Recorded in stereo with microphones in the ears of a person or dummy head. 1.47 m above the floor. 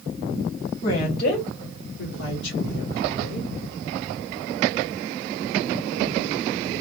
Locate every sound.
0.8 s a woman speaking: 45° left (ahead or behind), 1.2 m; by 3.5 s 60° left (ahead or behind), 1.4 m